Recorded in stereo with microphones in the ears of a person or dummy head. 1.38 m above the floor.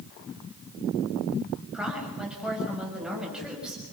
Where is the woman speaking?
5° right (ahead or behind), 6.5 m.